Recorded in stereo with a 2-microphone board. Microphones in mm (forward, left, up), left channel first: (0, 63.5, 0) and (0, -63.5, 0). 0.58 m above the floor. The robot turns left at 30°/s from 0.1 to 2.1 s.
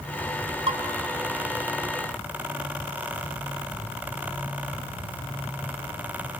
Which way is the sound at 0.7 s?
55° right (ahead or behind).